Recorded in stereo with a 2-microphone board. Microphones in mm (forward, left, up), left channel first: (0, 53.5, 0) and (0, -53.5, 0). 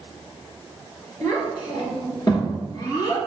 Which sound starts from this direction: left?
A child speaking, at 1.2 s.